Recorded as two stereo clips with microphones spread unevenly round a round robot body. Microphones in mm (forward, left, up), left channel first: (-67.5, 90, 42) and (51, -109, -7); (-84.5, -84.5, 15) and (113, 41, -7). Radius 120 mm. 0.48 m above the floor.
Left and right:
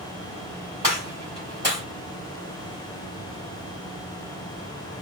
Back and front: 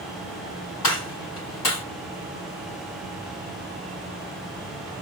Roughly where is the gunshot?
Behind right.